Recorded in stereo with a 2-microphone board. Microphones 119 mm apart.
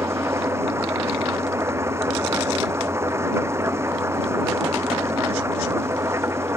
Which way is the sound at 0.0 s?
20° right (ahead or behind).